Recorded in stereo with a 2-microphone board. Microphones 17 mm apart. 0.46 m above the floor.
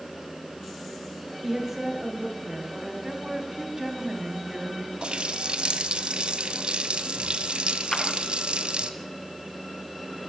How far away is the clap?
About 4 m.